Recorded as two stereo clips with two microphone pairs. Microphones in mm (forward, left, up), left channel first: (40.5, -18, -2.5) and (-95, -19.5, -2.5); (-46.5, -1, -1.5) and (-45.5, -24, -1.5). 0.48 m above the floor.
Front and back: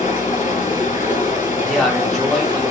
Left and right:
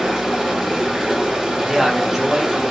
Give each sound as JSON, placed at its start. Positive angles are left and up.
{"t": 0.0, "sound": "running water", "azimuth_deg": -15, "distance_m": 2.0}
{"t": 1.6, "sound": "a man speaking", "azimuth_deg": -85, "distance_m": 1.2}